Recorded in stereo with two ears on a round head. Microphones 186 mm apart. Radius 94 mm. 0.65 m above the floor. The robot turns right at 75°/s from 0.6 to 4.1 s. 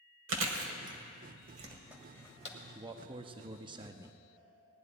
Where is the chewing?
75° right (ahead or behind), 1.2 m; by 2.6 s 40° left (ahead or behind), 1.2 m.